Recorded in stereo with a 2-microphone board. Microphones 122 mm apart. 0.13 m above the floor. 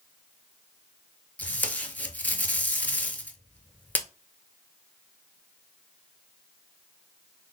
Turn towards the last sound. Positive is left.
turn(degrees=15)  # may be behind; listen again after turning